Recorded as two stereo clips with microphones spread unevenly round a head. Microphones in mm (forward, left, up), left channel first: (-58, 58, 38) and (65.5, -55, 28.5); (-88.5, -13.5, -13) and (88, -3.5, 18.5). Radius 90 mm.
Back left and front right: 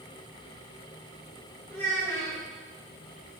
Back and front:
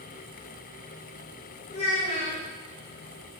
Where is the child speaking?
175° right, 0.8 m.